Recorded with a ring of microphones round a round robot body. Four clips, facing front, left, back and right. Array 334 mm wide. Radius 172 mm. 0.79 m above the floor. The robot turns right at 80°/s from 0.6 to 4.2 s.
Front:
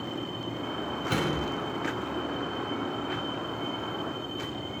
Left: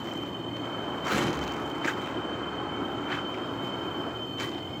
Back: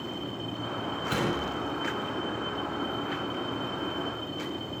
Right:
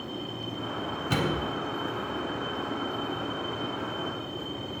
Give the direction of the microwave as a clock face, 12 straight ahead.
3 o'clock.